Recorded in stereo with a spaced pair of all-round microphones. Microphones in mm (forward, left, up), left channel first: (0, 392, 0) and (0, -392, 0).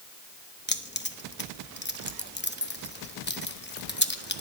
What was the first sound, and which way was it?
Keys jangling, 15° left (ahead or behind).